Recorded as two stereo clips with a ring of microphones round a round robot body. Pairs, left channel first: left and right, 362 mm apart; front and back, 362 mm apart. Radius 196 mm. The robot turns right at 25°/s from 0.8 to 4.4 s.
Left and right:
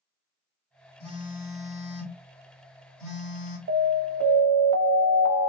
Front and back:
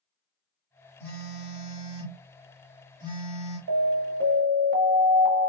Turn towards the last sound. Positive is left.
turn(degrees=-120)